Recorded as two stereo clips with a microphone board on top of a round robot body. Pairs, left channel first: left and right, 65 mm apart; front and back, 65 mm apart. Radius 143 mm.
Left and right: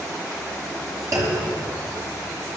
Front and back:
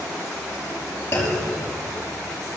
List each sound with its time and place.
1.1 s a clunk: 55° right, 5.5 m